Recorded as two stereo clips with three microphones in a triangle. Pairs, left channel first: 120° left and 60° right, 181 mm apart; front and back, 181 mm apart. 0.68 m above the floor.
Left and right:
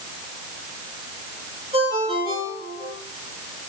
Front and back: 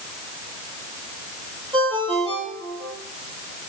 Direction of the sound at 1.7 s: 120° right.